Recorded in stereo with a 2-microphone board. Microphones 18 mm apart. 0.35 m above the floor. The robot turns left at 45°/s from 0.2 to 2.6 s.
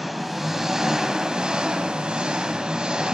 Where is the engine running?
5° right, 1.8 m; by 3.1 s 115° right, 1.8 m.